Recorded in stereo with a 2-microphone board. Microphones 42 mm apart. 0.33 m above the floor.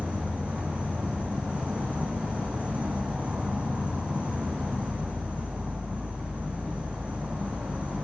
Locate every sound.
0.0 s an insect: 35° right (ahead or behind), 2 m